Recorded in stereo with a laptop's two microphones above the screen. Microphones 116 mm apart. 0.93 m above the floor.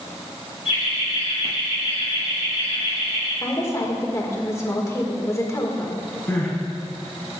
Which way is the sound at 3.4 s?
25° left (ahead or behind).